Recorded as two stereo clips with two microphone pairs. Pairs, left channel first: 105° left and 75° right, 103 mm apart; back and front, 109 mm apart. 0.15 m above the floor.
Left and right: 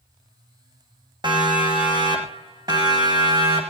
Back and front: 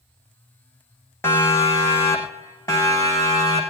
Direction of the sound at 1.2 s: 115° right.